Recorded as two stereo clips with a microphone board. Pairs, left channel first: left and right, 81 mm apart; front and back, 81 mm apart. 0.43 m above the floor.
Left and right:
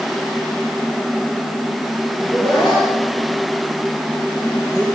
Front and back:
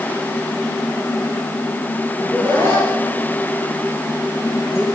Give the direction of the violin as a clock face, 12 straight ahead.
I don't hear a violin.